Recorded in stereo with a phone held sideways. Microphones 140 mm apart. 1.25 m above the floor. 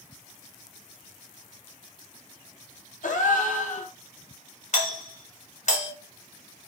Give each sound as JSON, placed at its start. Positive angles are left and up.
{"t": 3.0, "sound": "a gasp", "side_deg": 65, "distance_m": 0.7}
{"t": 4.7, "sound": "a doorbell", "side_deg": 55, "distance_m": 1.5}